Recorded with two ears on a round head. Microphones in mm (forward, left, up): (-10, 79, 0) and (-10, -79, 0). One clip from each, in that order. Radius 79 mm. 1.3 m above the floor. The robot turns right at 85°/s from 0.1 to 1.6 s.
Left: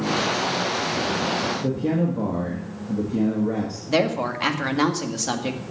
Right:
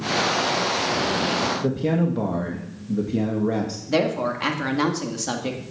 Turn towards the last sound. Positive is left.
turn(degrees=10)  # may be behind; listen again after turning